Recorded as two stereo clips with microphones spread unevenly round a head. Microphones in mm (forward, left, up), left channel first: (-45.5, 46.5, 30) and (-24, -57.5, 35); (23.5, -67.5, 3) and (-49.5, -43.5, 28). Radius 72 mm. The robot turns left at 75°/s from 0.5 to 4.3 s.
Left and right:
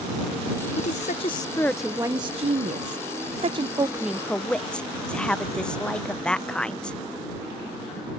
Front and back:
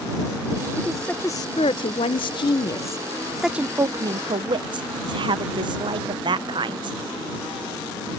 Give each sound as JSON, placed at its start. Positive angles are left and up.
{"t": 0.8, "sound": "a woman speaking", "azimuth_deg": 90}